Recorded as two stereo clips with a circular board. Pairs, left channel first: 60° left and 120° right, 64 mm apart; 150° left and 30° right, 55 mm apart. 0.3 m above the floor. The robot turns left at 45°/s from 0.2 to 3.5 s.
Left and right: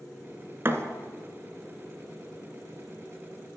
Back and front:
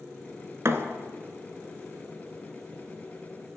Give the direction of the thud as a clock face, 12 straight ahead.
2 o'clock.